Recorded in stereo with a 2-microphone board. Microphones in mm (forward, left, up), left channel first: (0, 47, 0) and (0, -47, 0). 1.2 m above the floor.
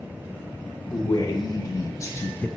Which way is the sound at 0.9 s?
55° left (ahead or behind).